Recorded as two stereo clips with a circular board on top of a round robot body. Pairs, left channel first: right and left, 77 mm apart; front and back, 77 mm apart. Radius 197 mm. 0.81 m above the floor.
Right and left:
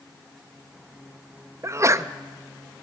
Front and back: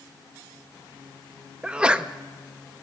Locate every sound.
1.6 s a sneeze: 110° left, 0.6 m